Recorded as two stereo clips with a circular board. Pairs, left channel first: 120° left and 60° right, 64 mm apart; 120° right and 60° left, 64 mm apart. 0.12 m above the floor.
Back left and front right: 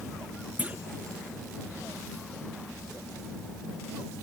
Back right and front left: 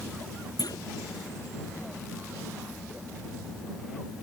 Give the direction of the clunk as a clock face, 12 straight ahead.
4 o'clock.